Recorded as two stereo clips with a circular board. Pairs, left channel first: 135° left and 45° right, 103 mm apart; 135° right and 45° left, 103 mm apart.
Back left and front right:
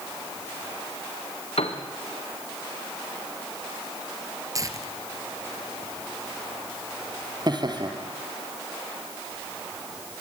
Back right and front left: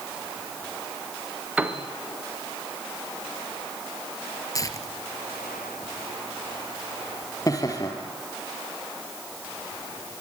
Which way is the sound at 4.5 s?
90° right.